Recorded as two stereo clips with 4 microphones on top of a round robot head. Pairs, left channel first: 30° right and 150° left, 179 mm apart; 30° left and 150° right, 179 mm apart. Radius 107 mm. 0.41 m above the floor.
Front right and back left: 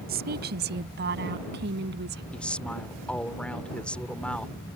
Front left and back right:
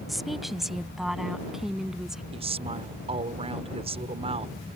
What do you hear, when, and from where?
0.1 s a woman speaking: 120° left; by 2.2 s 125° left
2.3 s a woman speaking: 115° right